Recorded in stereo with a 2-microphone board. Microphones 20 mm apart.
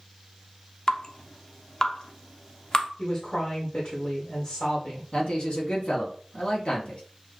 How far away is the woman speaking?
About 1.4 m.